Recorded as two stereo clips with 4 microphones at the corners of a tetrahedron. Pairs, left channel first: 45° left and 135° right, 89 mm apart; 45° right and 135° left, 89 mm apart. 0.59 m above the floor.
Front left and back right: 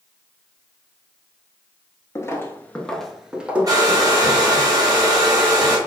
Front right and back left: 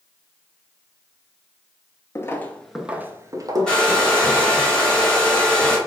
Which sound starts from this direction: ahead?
Footsteps, at 2.1 s.